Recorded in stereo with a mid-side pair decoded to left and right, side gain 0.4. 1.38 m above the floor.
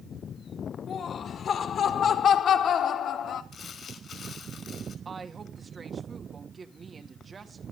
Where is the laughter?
60° left, 4 m; by 3.4 s 70° left, 2.5 m.